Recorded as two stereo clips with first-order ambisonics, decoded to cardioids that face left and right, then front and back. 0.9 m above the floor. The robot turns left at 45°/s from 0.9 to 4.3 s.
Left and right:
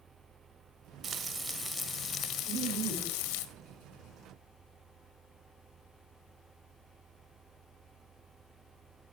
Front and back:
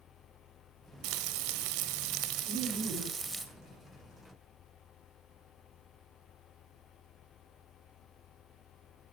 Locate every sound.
1.0 s frying: 155° right, 1.6 m; by 3.5 s 95° left, 1.6 m
2.5 s laughter: 175° right, 9.5 m; by 3.2 s 150° left, 9.5 m